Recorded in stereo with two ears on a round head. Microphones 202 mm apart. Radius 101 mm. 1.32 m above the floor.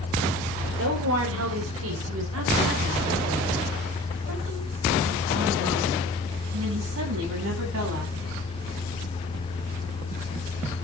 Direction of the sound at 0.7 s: 65° right (ahead or behind).